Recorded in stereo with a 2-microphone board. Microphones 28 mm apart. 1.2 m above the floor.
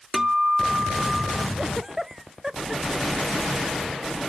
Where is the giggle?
20° right (ahead or behind).